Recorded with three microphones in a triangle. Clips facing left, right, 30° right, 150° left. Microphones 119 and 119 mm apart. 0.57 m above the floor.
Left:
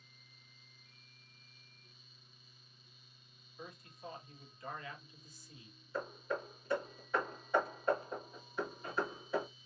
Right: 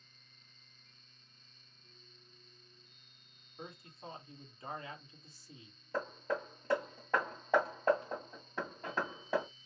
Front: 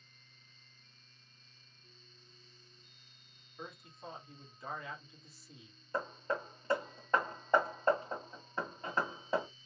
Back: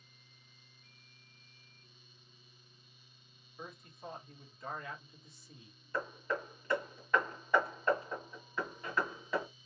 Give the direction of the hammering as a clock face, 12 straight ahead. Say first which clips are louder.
Right 3 dB, even; 3 o'clock.